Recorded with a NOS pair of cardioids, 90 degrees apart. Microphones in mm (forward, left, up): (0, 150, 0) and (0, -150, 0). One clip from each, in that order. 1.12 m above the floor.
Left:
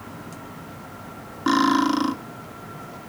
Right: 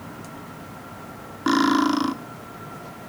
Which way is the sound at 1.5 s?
5° right.